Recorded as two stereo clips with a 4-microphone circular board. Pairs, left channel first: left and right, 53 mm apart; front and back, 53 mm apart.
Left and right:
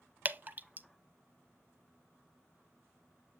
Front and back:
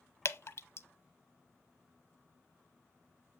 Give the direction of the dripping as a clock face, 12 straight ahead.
1 o'clock.